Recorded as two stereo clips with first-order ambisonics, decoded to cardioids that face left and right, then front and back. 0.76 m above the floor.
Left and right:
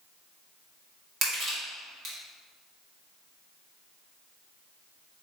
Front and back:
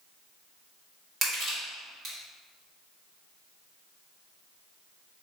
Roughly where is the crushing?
Behind right.